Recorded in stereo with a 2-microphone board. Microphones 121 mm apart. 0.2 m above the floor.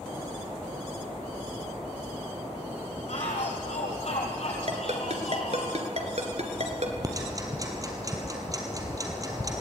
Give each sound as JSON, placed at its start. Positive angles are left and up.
{"t": 3.1, "sound": "a shout", "side_deg": 65, "distance_m": 6.0}
{"t": 4.7, "sound": "a ringtone", "side_deg": -65, "distance_m": 2.5}
{"t": 7.0, "sound": "ticking", "side_deg": -30, "distance_m": 3.0}